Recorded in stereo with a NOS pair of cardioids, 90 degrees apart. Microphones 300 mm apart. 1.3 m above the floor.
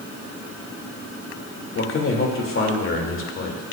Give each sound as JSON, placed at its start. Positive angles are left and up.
{"t": 1.8, "sound": "a man speaking", "azimuth_deg": 45, "distance_m": 2.5}